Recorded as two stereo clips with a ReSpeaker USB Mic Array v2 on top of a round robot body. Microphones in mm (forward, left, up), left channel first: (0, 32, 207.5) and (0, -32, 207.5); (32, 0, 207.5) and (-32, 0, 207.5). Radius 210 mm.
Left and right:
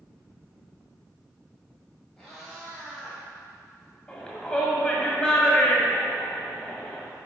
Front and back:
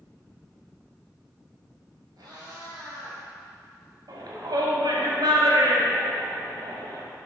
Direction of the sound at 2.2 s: 165° left.